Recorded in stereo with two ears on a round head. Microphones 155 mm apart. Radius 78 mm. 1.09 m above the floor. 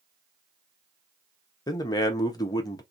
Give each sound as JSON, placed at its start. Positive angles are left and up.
{"t": 1.7, "sound": "a man speaking", "side_deg": 25, "distance_m": 0.5}